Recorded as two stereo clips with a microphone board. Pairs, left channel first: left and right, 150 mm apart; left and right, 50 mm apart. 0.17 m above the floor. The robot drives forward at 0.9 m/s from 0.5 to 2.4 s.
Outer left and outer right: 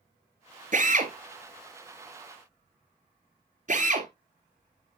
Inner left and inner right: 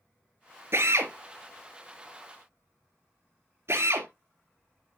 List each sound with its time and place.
0.7 s a drill: 60° right (ahead or behind), 2.5 m; by 4.1 s 55° right (ahead or behind), 2.5 m